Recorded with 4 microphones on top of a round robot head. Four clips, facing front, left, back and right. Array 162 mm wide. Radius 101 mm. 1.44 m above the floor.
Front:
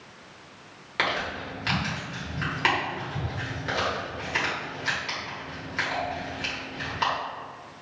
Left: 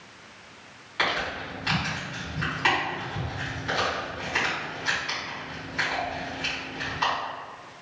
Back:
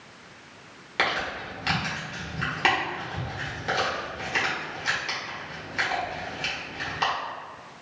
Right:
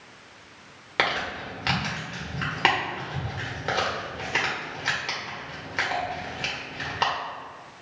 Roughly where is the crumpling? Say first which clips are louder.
Right 1 dB, back 1 dB; right.